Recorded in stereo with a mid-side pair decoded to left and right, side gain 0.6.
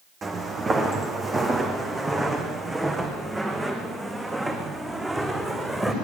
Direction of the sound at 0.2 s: 30° right.